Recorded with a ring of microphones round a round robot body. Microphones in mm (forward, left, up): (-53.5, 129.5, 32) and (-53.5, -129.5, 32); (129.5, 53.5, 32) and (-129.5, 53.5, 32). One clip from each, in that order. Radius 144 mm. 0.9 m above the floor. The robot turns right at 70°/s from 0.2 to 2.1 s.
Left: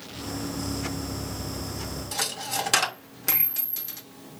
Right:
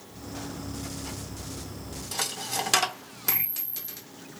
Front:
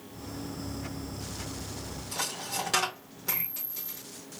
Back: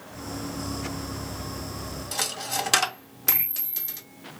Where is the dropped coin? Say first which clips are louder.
Left 1 dB, back 5 dB; 175° right, 0.5 m.